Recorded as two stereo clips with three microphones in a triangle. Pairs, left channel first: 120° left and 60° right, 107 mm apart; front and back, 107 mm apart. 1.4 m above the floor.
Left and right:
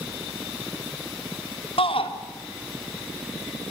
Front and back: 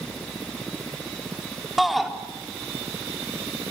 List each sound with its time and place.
1.8 s a shout: 90° left, 3.5 m